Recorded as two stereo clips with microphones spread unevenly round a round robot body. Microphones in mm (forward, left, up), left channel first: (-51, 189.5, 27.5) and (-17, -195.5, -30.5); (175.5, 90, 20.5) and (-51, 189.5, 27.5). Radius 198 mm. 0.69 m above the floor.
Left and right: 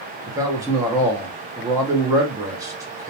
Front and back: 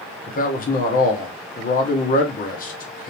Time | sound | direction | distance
0.3 | a man speaking | 25° right | 0.7 m